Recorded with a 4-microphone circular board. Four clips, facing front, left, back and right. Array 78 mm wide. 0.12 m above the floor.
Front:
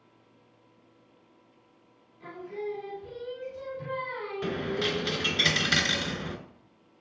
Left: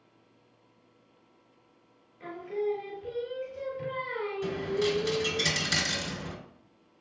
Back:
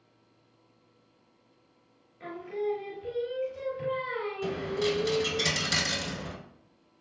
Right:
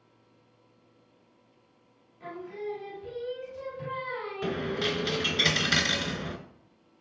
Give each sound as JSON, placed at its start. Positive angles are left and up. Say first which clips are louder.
{"t": 2.2, "sound": "singing", "louder": "left 5 dB, back 3 dB", "azimuth_deg": 145, "distance_m": 2.0}
{"t": 4.4, "sound": "a dropped coin", "louder": "left 1 dB, even", "azimuth_deg": -40, "distance_m": 0.5}